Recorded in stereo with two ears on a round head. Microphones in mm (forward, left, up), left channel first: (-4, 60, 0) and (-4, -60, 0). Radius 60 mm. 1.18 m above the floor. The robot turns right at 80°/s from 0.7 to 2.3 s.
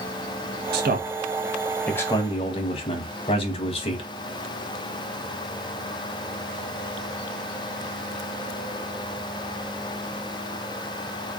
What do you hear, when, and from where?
0.7 s a man speaking: 85° right, 1.0 m; by 4.1 s 40° left, 1.0 m